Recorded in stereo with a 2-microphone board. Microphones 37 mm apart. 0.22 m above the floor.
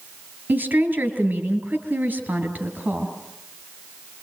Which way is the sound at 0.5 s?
45° right (ahead or behind).